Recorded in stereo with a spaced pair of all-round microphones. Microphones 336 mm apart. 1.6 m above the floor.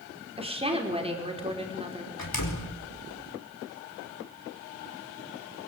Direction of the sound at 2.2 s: 80° left.